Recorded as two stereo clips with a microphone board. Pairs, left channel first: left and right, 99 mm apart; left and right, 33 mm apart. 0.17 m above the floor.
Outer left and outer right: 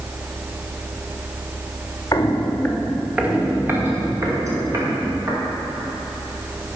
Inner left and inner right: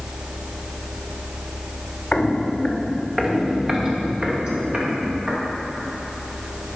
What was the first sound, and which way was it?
Footsteps, 40° left (ahead or behind).